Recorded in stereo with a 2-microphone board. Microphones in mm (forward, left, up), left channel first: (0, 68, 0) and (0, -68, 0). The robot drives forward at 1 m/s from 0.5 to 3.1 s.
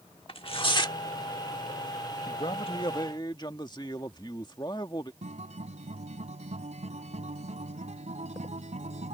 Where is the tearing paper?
45° left (ahead or behind); by 1.0 s 30° left (ahead or behind).